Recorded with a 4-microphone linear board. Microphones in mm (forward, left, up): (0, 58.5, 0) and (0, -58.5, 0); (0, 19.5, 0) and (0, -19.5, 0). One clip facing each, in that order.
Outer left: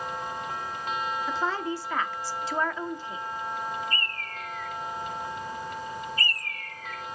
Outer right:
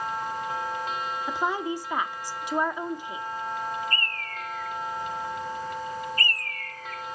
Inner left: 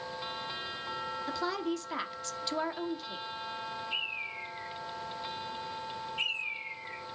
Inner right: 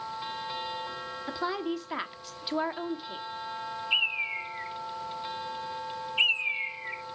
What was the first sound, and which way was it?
A woman speaking, 15° right (ahead or behind).